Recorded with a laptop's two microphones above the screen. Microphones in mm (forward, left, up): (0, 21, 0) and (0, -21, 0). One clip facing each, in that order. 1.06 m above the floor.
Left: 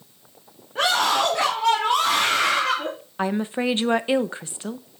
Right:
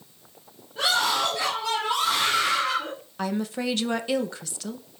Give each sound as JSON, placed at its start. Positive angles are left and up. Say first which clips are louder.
{"t": 0.8, "sound": "a scream", "louder": "left 3 dB", "side_deg": 75, "distance_m": 2.5}
{"t": 3.2, "sound": "a woman speaking", "louder": "left 4 dB", "side_deg": 30, "distance_m": 0.9}